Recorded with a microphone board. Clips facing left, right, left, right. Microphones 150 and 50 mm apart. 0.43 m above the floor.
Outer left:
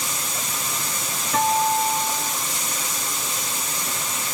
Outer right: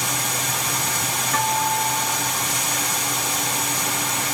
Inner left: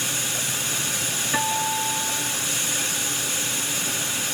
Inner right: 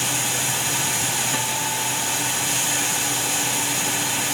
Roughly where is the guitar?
Centre.